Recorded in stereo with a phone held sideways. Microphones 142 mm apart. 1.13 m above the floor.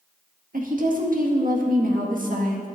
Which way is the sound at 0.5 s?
75° right (ahead or behind).